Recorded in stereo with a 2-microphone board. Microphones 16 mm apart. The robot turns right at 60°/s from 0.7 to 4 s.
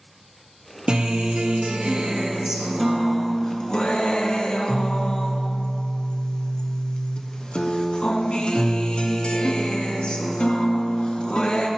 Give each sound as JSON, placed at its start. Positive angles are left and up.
{"t": 0.9, "sound": "a guitar", "azimuth_deg": -115, "distance_m": 0.7}